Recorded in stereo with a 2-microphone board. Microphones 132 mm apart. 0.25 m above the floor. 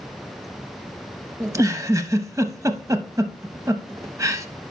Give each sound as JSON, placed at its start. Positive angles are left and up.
{"t": 1.4, "sound": "a giggle", "side_deg": -25, "distance_m": 0.6}